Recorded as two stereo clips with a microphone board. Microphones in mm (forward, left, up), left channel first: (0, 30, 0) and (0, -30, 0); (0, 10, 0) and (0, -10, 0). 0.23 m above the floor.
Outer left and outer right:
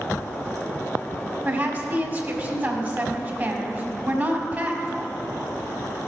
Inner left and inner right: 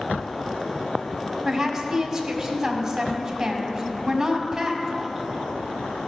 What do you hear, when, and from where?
1.4 s a woman speaking: 30° right (ahead or behind), 1.5 m